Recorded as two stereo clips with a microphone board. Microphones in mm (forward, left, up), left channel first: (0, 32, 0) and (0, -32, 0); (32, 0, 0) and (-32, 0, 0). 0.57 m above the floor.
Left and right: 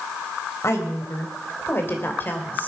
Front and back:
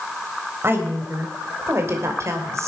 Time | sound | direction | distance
0.6 | a woman speaking | 130° left | 3 m